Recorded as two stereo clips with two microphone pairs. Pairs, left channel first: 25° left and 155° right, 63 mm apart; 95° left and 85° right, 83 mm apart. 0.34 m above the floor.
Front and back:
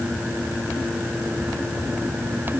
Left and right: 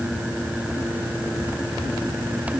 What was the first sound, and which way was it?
Only background noise.